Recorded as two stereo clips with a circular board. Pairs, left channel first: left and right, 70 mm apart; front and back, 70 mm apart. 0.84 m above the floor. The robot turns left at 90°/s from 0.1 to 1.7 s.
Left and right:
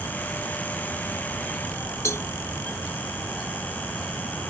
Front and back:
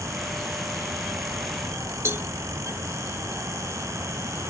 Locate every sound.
2.0 s a cowbell: 130° left